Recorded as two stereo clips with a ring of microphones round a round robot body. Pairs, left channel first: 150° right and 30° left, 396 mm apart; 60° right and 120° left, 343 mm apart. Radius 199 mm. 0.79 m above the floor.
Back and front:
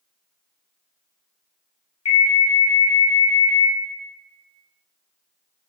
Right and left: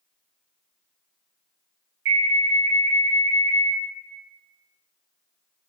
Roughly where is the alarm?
Behind.